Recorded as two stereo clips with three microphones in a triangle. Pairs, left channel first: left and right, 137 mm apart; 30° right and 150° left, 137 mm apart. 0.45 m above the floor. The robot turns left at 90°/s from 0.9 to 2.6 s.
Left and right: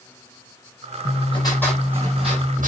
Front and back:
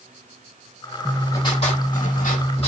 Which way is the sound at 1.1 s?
65° left.